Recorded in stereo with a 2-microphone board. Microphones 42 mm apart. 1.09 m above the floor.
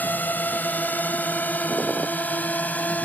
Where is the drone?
45° left (ahead or behind); by 3.1 s 40° left (ahead or behind).